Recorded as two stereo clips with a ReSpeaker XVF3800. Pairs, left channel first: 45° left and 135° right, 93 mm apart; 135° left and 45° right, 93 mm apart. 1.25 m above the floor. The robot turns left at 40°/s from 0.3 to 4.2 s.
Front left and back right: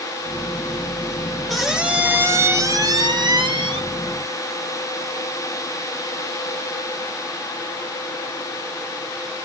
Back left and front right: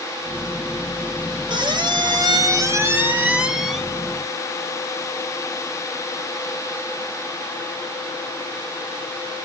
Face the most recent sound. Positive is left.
turn(degrees=-155)